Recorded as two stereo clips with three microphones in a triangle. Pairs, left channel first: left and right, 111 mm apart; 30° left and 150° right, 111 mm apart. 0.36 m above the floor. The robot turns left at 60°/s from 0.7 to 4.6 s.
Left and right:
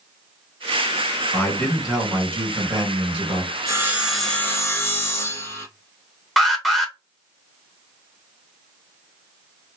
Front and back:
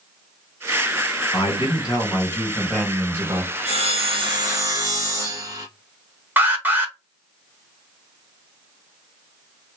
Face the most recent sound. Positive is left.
turn(degrees=175)